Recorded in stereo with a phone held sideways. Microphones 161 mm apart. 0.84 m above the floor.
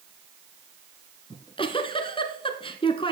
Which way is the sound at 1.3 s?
35° left (ahead or behind).